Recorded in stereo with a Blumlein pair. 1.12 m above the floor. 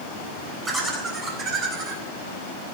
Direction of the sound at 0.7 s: 20° right.